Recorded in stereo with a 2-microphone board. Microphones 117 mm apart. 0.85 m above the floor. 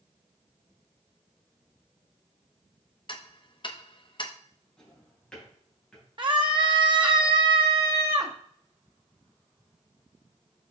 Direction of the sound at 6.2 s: 40° right (ahead or behind).